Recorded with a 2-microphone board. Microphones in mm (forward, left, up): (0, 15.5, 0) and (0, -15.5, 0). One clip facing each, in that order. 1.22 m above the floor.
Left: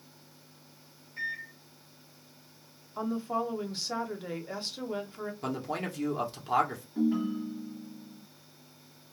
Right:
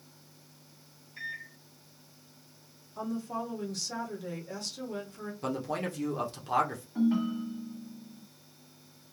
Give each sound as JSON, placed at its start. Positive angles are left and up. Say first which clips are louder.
{"t": 1.2, "sound": "a microwave", "louder": "left 4 dB", "side_deg": -10, "distance_m": 1.0}
{"t": 3.0, "sound": "a woman speaking", "louder": "left 4 dB", "side_deg": 30, "distance_m": 0.7}
{"t": 5.4, "sound": "a man speaking", "louder": "right 2 dB", "side_deg": 5, "distance_m": 0.8}
{"t": 7.0, "sound": "a ringtone", "louder": "right 1 dB", "side_deg": -50, "distance_m": 1.3}